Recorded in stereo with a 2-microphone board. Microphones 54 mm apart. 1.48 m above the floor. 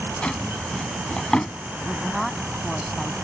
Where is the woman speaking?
Centre (ahead or behind).